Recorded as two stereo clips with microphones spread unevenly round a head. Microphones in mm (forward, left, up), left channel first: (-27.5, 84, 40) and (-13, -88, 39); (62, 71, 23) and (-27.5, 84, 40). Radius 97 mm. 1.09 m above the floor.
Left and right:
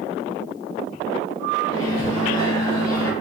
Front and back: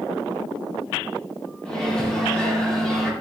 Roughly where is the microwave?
Left.